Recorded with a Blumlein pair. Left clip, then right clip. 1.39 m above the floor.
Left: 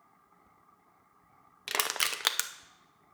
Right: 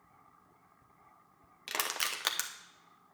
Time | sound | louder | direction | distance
1.7 | crushing | left 4 dB | 15° left | 0.6 m